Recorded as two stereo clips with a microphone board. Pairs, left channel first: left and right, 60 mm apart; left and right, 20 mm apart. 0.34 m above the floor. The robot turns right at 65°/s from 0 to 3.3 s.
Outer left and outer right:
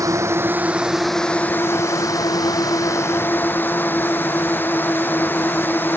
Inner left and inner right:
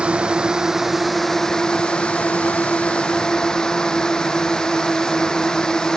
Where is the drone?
70° right; by 6.0 s 145° left.